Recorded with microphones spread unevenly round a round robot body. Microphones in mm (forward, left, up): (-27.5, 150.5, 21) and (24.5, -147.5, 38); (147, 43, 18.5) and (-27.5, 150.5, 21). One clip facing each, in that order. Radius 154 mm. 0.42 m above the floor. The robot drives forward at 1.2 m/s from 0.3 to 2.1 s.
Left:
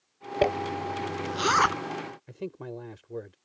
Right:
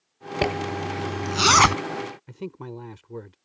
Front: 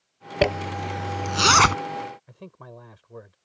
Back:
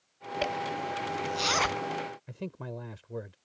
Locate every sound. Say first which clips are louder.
0.4 s a zipper: even, front 10 dB; 15° right; by 1.8 s 55° right
2.3 s a man speaking: right 1 dB, back 5 dB; 150° right